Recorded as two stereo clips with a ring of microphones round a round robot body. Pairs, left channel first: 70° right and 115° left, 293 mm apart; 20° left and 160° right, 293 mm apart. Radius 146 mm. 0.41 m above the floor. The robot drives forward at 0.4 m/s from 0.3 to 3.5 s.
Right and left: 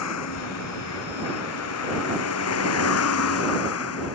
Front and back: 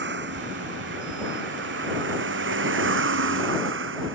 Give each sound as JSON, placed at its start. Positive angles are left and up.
{"t": 0.0, "sound": "a vehicle", "azimuth_deg": -105}